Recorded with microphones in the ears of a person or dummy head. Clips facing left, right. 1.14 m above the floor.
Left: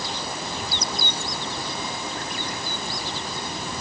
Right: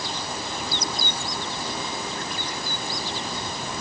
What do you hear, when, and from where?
Only background noise.